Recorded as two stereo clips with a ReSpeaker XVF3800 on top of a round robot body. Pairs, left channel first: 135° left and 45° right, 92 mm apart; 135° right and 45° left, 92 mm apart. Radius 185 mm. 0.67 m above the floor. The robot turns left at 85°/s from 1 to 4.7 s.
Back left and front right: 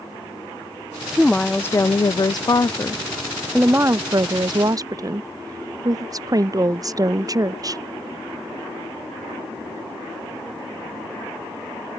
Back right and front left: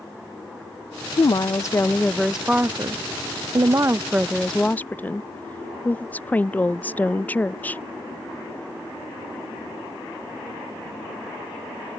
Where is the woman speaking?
125° right; by 7.8 s 70° right.